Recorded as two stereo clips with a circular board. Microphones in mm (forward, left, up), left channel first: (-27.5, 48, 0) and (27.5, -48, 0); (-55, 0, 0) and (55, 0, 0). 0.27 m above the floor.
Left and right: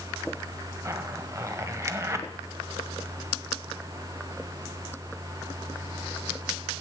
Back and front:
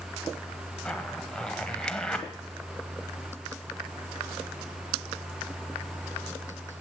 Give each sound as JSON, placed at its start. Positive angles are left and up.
{"t": 0.8, "sound": "a zipper", "azimuth_deg": -105, "distance_m": 1.1}